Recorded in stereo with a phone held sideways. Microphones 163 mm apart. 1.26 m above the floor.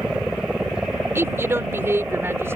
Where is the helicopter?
5° right (ahead or behind).